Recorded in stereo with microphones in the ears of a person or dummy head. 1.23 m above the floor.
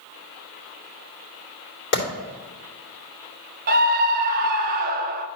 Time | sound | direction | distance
1.9 | a clap | 60° left (ahead or behind) | 3 m
3.7 | a scream | 45° right (ahead or behind) | 0.6 m